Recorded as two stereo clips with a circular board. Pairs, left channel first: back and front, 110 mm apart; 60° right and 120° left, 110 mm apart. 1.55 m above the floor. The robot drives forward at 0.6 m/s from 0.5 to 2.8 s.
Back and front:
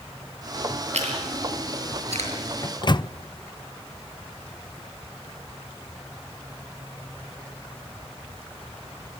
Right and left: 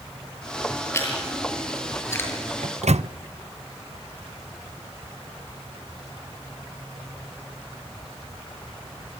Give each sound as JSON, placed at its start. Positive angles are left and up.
{"t": 0.9, "sound": "chewing", "azimuth_deg": 5, "distance_m": 7.5}
{"t": 2.6, "sound": "a microwave", "azimuth_deg": 125, "distance_m": 0.7}